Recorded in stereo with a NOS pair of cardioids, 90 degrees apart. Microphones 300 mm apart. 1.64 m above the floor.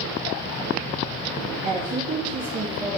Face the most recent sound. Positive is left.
turn(degrees=-40)